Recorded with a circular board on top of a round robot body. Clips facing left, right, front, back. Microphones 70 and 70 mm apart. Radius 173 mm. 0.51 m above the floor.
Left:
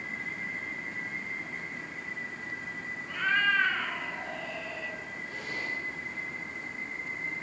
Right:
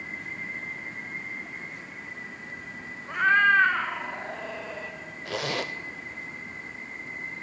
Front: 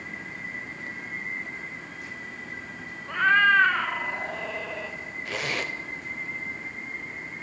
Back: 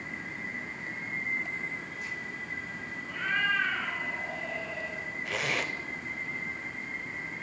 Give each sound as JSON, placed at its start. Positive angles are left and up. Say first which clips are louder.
{"t": 3.1, "sound": "a cat meowing", "louder": "right 7 dB, front 10 dB", "azimuth_deg": -35, "distance_m": 1.4}
{"t": 5.2, "sound": "a zipper", "louder": "right 7 dB, front 2 dB", "azimuth_deg": -90, "distance_m": 1.1}